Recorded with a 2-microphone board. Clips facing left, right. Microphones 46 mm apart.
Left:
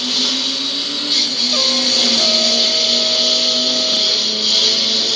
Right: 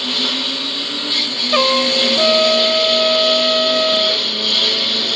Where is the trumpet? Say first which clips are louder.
Right 6 dB; 55° right (ahead or behind).